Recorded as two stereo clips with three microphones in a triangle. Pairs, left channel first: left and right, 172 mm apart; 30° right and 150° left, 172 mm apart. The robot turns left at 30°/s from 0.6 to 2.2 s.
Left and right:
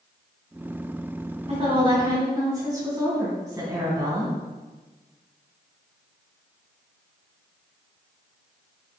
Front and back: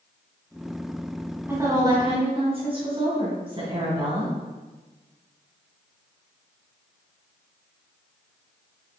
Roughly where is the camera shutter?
I don't hear a camera shutter.